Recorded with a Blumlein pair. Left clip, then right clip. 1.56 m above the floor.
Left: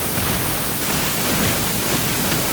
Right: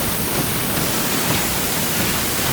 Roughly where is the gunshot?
I don't hear a gunshot.